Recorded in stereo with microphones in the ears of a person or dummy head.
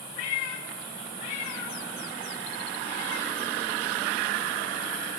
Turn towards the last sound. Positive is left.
turn(degrees=40)  # may be behind; listen again after turning